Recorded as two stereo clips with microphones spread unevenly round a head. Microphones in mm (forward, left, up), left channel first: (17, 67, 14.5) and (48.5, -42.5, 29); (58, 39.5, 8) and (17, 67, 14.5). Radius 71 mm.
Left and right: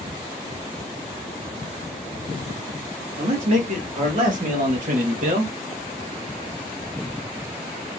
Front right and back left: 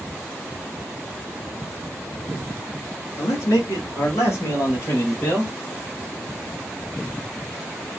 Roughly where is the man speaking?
Ahead right.